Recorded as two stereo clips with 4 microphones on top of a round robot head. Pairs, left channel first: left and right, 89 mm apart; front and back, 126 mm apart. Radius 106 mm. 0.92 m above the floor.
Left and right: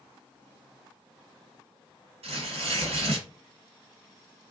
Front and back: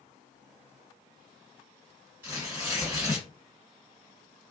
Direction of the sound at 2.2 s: 105° right.